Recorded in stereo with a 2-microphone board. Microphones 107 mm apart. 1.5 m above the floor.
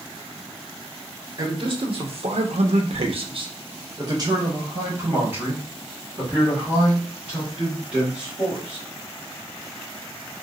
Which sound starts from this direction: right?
A man speaking, at 1.4 s.